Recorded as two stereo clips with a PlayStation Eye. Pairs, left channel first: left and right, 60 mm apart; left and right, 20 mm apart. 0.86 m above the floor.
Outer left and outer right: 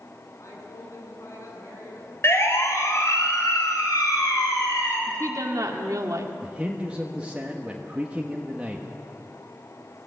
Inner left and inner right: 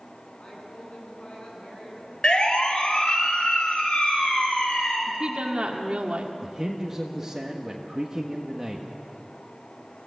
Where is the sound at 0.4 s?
60° left (ahead or behind), 9 m.